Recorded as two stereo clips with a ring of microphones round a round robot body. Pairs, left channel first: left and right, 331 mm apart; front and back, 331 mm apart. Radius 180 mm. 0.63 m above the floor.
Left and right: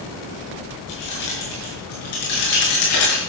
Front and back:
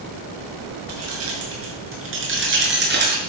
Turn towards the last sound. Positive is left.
turn(degrees=120)